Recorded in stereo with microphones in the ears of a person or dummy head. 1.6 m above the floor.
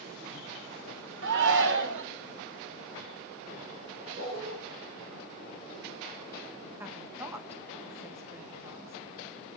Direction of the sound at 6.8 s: 15° right (ahead or behind).